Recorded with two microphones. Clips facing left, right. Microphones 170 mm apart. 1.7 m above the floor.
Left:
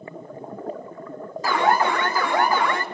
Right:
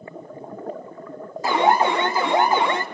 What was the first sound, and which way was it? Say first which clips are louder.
An alarm: right 2 dB; 20° right (ahead or behind).